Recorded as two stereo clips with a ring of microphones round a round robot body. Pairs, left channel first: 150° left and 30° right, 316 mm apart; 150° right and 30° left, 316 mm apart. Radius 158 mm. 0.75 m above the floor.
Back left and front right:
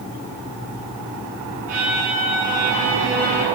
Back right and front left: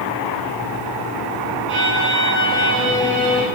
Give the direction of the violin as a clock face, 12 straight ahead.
1 o'clock.